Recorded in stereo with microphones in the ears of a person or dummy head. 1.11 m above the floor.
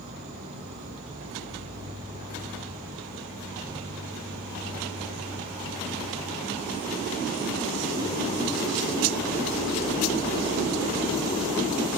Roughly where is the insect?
Right.